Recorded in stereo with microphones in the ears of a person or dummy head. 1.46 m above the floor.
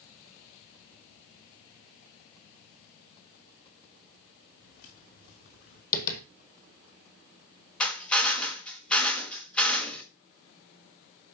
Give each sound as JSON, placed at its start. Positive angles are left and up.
{"t": 4.6, "sound": "footsteps", "side_deg": 60, "distance_m": 4.0}
{"t": 5.9, "sound": "tapping", "side_deg": 55, "distance_m": 1.5}
{"t": 7.8, "sound": "a drill", "side_deg": 0, "distance_m": 1.2}